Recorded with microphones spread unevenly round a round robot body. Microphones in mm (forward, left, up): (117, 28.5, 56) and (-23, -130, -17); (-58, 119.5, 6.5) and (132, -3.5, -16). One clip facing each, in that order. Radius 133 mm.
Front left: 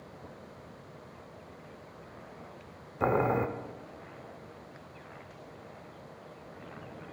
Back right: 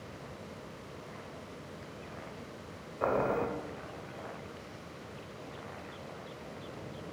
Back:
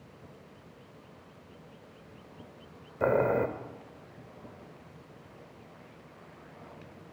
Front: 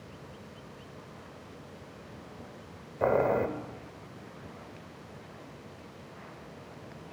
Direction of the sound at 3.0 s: 60° left.